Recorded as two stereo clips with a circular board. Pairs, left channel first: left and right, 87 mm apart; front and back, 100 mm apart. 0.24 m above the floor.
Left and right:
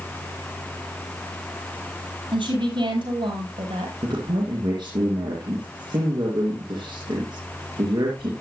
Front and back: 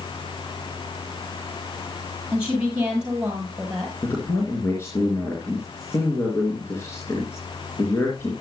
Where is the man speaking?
65° right, 4 m.